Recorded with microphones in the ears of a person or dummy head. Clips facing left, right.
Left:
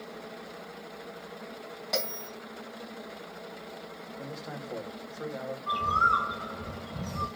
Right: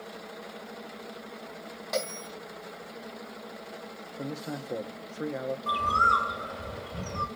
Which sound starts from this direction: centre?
A bell, at 1.9 s.